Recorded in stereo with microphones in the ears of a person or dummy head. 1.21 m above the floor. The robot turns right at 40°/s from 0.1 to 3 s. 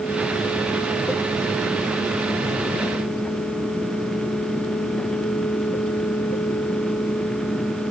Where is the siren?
I don't hear a siren.